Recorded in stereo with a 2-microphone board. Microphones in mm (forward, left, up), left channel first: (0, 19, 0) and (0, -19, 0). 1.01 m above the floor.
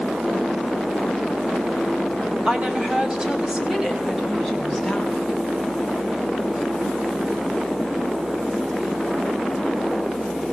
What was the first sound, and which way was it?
A woman speaking, 25° right (ahead or behind).